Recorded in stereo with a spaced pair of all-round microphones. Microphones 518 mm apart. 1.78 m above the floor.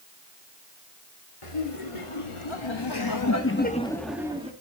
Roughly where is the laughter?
Left.